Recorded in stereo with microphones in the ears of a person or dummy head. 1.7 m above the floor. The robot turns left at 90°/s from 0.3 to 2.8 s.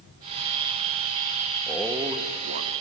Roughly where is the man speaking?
Ahead.